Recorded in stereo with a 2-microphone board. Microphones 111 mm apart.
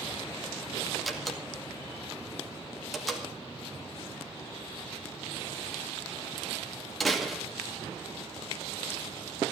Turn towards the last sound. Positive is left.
turn(degrees=0)  # may be behind; listen again after turning